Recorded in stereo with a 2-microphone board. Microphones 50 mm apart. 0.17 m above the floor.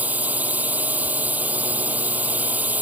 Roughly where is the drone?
Right.